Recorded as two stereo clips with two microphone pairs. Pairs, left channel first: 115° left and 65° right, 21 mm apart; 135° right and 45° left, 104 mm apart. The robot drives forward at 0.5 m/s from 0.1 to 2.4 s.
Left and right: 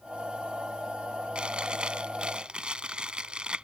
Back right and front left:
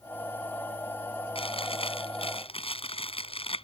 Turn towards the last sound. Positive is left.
turn(degrees=-110)